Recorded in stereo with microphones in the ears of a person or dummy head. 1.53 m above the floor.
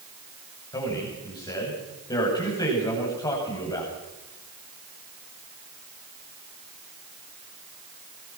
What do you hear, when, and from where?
0.7 s a man speaking: 25° left (ahead or behind), 8 m